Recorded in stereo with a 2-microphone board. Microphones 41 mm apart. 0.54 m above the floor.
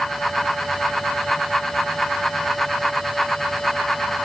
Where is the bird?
I don't hear a bird.